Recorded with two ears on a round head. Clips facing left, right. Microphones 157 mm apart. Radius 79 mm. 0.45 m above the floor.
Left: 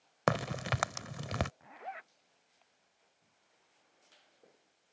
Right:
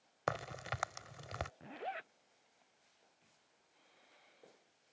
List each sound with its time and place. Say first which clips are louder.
0.3 s a crack: left 8 dB; 70° left (ahead or behind)
1.6 s a zipper: right 2 dB; 40° right (ahead or behind)